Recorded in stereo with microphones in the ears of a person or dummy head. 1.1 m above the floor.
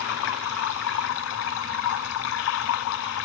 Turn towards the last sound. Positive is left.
turn(degrees=75)  # may be behind; listen again after turning